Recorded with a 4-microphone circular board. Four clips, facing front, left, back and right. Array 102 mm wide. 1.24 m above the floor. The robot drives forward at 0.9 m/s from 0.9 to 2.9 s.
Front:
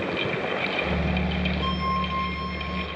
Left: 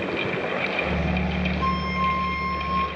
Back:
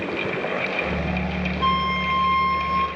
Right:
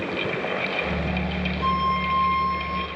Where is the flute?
170° left, 1.7 m; by 2.9 s 175° left, 2.5 m.